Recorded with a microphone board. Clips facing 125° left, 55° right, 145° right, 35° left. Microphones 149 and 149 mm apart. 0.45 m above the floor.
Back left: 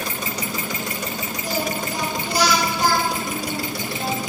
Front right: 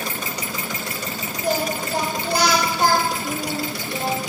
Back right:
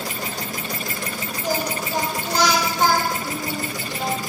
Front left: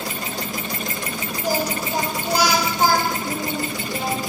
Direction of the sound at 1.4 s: 40° right.